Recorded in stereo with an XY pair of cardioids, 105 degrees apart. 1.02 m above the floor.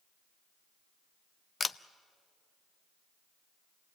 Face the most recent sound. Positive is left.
turn(degrees=30)